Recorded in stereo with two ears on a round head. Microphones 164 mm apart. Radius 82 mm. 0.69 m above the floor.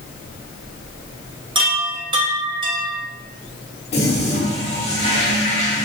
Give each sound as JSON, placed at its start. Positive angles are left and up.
{"t": 1.6, "sound": "a chime", "side_deg": -25, "distance_m": 0.7}
{"t": 3.9, "sound": "a toilet flushing", "side_deg": 35, "distance_m": 1.1}